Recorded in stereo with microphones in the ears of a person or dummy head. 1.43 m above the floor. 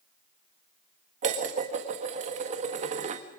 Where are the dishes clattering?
35° right (ahead or behind), 1.6 m.